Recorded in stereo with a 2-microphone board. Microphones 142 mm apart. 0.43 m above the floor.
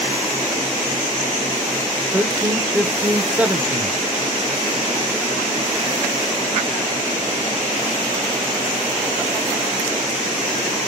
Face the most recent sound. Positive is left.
turn(degrees=-10)  # may be behind; listen again after turning